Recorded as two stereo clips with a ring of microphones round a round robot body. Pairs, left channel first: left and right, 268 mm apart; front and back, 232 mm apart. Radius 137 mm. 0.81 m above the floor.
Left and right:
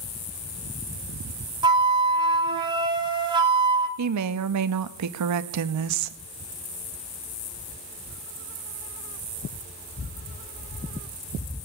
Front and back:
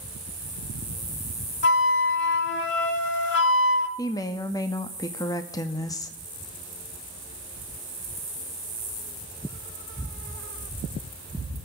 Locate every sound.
1.6 s a flute: 20° right, 0.8 m
4.0 s a woman speaking: 75° right, 0.7 m